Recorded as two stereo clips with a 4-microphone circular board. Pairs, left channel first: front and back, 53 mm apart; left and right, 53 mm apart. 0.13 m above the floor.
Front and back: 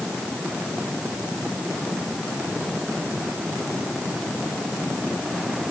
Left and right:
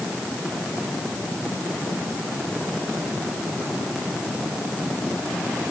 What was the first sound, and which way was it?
Only background noise.